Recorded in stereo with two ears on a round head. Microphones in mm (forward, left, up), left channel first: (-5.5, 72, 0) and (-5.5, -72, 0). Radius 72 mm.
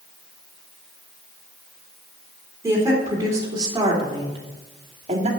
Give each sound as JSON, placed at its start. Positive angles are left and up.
{"t": 2.6, "sound": "a woman speaking", "side_deg": -20, "distance_m": 3.5}